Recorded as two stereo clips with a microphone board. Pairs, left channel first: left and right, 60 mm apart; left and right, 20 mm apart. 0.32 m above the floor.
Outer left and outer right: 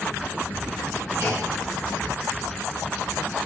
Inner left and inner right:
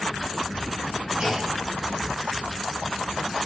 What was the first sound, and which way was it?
A clunk, 40° right (ahead or behind).